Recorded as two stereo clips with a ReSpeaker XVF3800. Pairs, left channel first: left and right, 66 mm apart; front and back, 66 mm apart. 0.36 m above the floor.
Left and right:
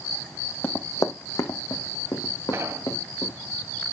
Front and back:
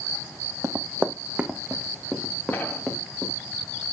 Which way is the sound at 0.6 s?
145° left.